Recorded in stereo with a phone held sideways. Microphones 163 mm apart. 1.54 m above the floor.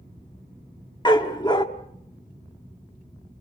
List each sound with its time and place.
1.1 s a dog barking: 25° left (ahead or behind), 1.2 m